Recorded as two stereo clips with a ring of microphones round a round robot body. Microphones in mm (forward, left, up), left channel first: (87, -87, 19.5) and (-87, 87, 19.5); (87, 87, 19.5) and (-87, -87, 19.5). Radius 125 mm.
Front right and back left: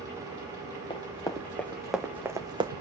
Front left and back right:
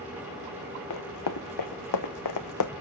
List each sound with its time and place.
0.9 s running footsteps: 25° left, 2 m; by 2.7 s 65° left, 1.6 m